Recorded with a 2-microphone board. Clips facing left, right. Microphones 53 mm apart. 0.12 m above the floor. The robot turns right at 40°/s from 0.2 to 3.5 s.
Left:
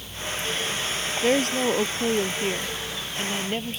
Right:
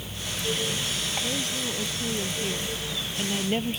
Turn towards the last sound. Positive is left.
turn(degrees=180)